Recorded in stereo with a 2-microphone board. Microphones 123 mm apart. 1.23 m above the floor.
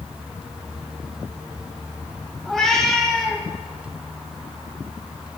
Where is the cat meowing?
5° left (ahead or behind), 2.5 m.